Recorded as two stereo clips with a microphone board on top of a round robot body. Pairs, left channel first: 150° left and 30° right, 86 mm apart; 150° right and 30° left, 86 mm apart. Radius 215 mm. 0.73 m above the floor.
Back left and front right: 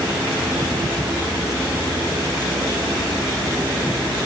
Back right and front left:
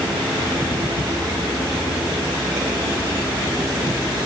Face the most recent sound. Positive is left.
No sound to turn to.